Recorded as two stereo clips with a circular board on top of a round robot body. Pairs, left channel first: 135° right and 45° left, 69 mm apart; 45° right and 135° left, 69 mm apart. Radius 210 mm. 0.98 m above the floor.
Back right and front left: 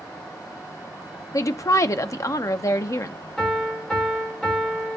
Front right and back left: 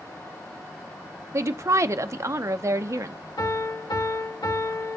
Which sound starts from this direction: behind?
A woman speaking, at 1.3 s.